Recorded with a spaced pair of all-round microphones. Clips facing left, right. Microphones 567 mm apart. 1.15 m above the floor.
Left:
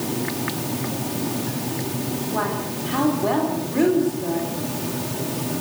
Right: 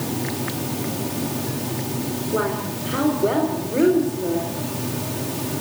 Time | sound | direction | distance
2.3 | a woman speaking | 20° left (ahead or behind) | 4.5 m